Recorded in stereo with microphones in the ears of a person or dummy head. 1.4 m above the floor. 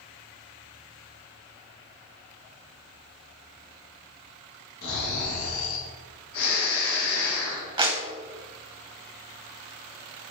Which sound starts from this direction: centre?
A clap, at 7.8 s.